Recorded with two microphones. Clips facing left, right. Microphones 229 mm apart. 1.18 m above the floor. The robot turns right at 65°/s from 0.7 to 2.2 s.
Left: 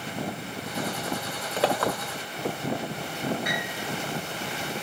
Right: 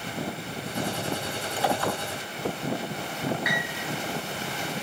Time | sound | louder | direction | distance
1.6 | a clink | left 2 dB | 70° left (ahead or behind) | 1.9 m
3.5 | a piano | even | 35° left (ahead or behind) | 6.5 m